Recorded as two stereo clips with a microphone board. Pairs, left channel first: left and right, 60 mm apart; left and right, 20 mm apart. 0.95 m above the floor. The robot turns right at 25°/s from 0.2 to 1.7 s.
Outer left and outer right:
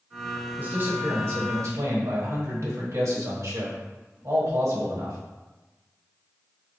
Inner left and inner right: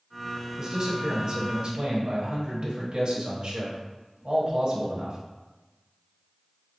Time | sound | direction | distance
0.6 | a man speaking | 30° right (ahead or behind) | 1.2 m